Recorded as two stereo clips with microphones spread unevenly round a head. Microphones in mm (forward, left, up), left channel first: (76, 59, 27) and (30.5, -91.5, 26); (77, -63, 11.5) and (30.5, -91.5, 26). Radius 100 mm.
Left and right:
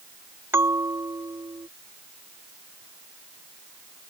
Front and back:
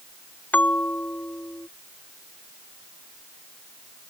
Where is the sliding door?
I don't hear a sliding door.